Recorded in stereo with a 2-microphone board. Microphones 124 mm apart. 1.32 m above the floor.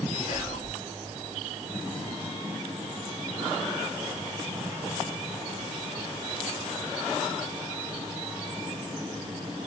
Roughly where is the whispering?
Left.